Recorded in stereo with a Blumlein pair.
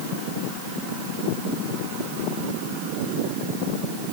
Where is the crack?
No crack in this recording.